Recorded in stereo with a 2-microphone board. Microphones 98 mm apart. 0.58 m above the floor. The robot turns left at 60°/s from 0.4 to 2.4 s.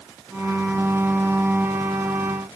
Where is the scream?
I don't hear a scream.